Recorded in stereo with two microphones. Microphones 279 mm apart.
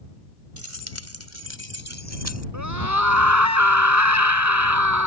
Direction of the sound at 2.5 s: 85° right.